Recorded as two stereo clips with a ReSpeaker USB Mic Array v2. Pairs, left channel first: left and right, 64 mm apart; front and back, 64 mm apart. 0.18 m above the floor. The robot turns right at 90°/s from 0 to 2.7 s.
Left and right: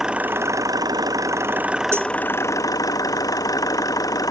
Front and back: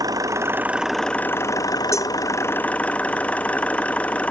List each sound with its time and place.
0.0 s an engine running: 175° right; by 4.3 s 70° left
1.9 s a cowbell: 40° right; by 2.1 s 20° right